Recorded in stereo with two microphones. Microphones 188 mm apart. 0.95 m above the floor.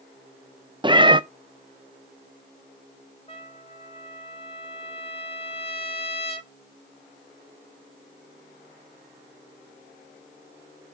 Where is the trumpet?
30° left (ahead or behind), 1.3 m.